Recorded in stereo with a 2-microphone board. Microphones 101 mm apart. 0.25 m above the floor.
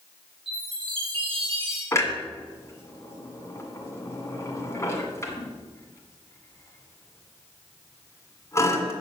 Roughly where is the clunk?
Left.